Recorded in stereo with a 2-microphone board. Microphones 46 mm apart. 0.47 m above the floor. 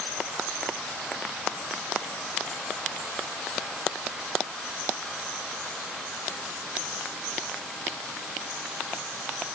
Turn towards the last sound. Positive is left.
No sound to turn to.